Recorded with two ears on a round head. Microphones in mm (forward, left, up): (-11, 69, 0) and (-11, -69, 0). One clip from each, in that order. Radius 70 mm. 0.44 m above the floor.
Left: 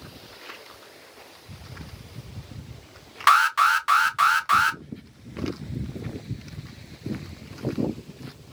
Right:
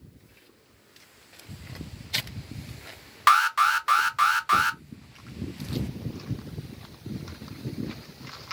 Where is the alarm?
5° right (ahead or behind), 0.5 m.